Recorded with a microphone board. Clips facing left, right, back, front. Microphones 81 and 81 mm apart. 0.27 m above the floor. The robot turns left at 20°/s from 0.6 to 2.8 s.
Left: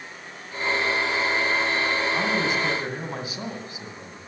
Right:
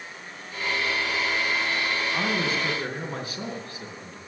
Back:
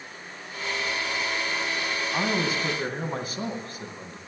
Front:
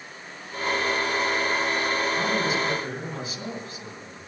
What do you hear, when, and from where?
2.1 s a man speaking: 170° left, 2 m; by 4.2 s 155° left, 2 m